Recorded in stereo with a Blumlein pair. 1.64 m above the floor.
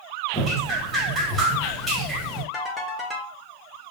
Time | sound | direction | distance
0.3 | dripping | 10° right | 1.5 m
2.5 | a ringtone | 5° left | 1.6 m